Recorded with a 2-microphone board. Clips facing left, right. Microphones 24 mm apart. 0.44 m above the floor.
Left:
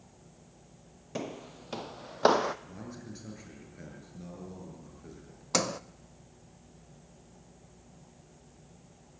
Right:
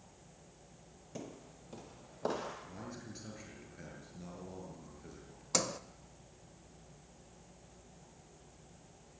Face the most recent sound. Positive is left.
turn(degrees=20)  # may be behind; listen again after turning